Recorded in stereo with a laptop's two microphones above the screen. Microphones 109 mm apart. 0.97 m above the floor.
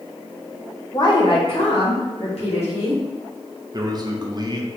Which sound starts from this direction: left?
A woman speaking, at 0.9 s.